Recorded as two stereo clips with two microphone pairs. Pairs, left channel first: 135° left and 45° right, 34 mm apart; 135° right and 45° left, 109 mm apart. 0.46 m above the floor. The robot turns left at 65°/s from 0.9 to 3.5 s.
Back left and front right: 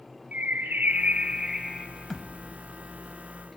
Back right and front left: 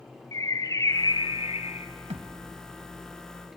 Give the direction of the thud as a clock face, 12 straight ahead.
10 o'clock.